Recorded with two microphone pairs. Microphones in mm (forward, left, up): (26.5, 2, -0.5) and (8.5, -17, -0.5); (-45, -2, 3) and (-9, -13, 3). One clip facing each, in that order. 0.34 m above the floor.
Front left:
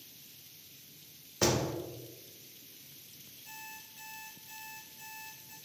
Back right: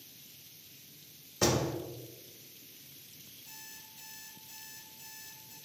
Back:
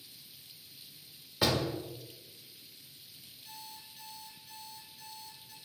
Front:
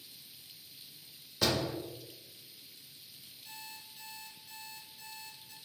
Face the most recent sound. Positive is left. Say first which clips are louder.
# front left 5 dB, even
turn(degrees=70)